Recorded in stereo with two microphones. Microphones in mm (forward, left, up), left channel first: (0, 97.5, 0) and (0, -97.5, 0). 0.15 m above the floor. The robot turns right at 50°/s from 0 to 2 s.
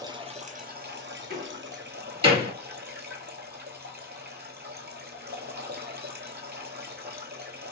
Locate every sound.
0.0 s running water: 160° right, 0.7 m; by 7.7 s 60° right, 0.7 m
1.3 s a door slam: 55° right (ahead or behind), 2.5 m; by 2.5 s 30° right (ahead or behind), 2.5 m